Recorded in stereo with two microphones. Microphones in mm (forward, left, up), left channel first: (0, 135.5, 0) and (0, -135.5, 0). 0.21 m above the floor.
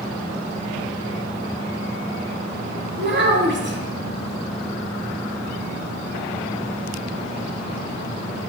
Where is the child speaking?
45° right (ahead or behind), 0.7 m.